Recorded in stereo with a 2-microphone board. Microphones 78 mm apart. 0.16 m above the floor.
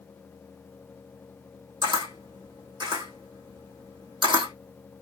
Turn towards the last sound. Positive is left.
turn(degrees=-80)